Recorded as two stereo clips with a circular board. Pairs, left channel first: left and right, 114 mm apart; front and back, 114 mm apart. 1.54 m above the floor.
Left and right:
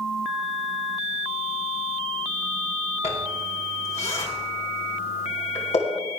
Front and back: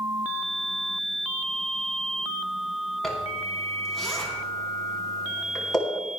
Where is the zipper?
85° left, 3.5 m.